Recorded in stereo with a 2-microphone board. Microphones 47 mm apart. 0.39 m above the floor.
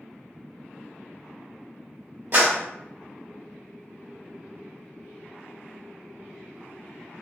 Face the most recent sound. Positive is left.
turn(degrees=-50)  # may be behind; listen again after turning